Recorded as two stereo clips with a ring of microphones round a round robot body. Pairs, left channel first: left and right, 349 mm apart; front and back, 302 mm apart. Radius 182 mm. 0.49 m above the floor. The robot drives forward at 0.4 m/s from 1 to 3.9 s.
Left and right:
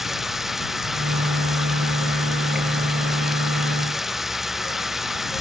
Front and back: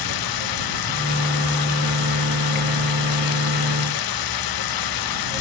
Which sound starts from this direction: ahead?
Running water, at 0.0 s.